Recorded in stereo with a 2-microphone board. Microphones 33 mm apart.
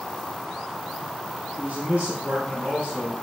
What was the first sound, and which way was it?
A man speaking, 55° right (ahead or behind).